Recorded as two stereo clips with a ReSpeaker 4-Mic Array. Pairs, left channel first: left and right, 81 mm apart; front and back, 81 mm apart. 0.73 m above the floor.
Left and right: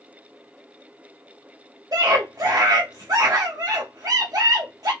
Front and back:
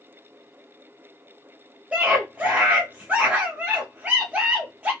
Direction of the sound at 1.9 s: 110° right.